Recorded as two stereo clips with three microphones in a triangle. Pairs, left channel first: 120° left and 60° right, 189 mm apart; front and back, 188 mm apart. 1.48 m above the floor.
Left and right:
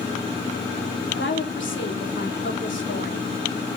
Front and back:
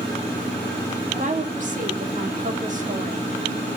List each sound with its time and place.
1.1 s a woman speaking: 130° left, 3.5 m